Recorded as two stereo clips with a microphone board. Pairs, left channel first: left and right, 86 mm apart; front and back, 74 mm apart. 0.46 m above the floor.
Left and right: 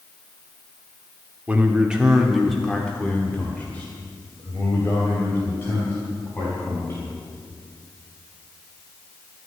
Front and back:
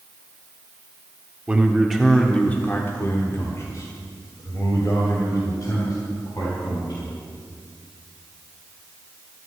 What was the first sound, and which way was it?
A man speaking, 130° right.